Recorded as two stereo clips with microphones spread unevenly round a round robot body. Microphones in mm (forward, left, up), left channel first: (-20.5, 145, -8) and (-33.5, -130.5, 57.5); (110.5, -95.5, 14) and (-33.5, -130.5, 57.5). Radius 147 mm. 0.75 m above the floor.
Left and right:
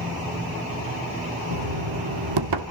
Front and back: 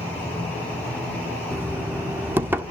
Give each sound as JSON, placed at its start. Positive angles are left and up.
{"t": 1.5, "sound": "knocking", "azimuth_deg": -85, "distance_m": 1.5}